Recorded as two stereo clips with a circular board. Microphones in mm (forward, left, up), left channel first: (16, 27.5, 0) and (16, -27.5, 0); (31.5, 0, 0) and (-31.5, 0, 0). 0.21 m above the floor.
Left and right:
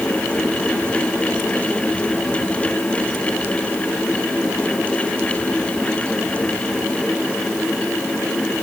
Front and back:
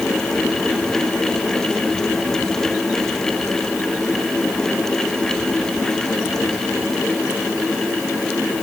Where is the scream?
No scream in this recording.